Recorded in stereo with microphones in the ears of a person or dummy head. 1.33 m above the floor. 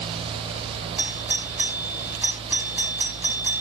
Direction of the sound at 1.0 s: 5° right (ahead or behind).